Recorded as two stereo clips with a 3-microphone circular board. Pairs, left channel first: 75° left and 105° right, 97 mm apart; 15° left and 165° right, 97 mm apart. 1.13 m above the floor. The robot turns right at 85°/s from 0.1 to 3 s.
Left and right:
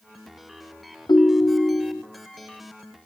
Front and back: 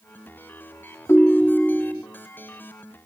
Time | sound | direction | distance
1.1 | a ringtone | 70° left | 0.8 m